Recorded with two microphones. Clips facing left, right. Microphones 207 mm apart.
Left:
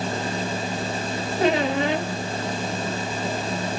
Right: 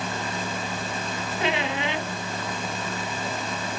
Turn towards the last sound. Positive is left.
turn(degrees=40)  # may be behind; listen again after turning